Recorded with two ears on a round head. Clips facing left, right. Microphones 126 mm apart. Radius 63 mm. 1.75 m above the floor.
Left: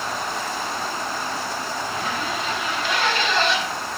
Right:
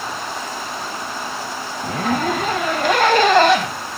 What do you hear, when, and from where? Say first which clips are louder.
1.8 s a zipper: right 11 dB; 40° right (ahead or behind), 0.5 m